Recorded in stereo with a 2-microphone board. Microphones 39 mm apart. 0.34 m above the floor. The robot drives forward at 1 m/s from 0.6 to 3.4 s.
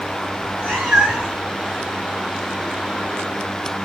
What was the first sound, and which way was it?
A cat meowing, 20° right (ahead or behind).